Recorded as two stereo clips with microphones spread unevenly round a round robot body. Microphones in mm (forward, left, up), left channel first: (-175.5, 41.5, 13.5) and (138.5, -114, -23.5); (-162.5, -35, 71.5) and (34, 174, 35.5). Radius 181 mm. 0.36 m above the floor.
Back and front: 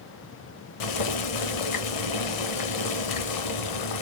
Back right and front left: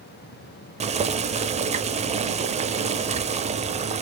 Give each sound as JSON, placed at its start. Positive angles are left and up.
{"t": 0.8, "sound": "boiling", "azimuth_deg": 115, "distance_m": 0.5}